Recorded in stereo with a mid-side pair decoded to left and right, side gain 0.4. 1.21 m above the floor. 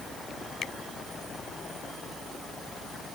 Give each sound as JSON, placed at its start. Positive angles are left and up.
{"t": 0.6, "sound": "a finger snap", "azimuth_deg": 65}